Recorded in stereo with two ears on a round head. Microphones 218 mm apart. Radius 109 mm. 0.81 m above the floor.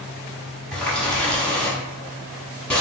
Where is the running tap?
5° left (ahead or behind), 0.8 m.